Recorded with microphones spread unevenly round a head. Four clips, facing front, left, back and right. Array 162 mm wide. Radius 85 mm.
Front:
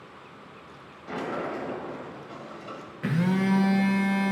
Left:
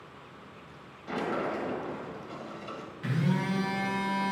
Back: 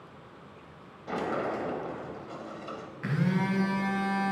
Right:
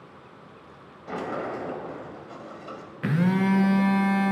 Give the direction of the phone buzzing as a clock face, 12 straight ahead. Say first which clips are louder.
Right 7 dB, front 4 dB; 2 o'clock.